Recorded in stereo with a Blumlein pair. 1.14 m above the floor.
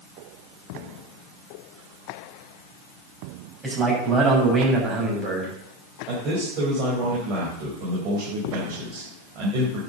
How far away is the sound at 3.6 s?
About 6.5 m.